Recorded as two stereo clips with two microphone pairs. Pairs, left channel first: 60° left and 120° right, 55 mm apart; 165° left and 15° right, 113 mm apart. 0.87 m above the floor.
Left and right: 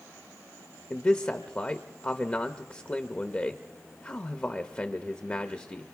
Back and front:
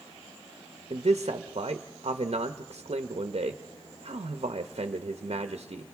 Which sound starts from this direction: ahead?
A man speaking, at 0.9 s.